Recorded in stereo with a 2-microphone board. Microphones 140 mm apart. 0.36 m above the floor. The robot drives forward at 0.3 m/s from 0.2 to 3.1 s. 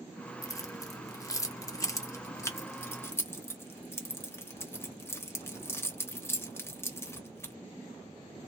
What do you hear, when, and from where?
0.4 s keys jangling: 20° left (ahead or behind), 0.7 m